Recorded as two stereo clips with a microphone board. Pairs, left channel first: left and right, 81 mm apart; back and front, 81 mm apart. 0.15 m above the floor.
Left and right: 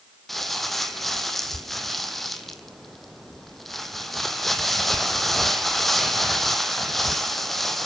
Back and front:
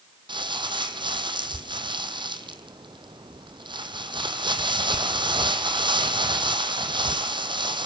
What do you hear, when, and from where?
0.3 s crumpling: straight ahead, 1.4 m